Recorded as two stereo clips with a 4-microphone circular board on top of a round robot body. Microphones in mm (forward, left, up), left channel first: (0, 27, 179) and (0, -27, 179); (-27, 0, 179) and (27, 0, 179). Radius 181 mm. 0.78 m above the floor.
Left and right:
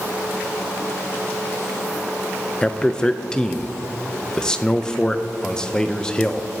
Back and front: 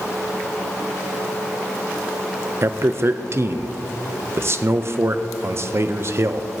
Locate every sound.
2.6 s a man speaking: 15° left, 0.6 m